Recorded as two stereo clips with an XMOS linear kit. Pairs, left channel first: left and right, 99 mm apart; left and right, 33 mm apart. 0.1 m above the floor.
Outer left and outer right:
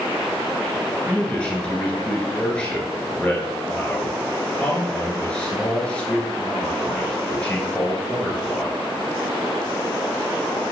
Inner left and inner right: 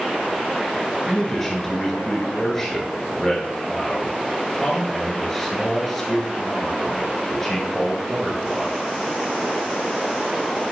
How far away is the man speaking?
About 1.3 m.